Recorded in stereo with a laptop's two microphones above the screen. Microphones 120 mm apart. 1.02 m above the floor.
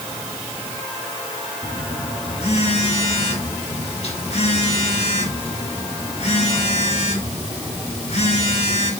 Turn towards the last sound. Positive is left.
turn(degrees=60)  # may be behind; listen again after turning